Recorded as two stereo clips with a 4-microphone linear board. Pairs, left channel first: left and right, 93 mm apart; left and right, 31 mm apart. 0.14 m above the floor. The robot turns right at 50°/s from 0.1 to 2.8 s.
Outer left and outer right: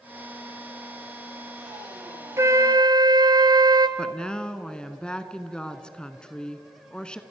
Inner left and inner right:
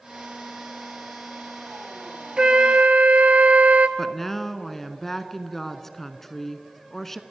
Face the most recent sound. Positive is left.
turn(degrees=10)  # may be behind; listen again after turning